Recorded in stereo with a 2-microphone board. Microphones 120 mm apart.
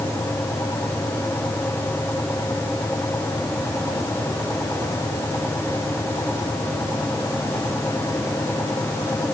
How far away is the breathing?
No breathing in this recording.